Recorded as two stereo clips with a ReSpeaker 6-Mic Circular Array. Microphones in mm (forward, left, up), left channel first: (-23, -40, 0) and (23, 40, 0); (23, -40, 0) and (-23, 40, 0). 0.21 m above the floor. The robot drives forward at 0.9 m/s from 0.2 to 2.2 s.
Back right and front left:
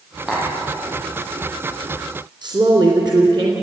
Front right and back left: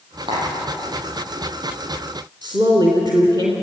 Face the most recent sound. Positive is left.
turn(degrees=90)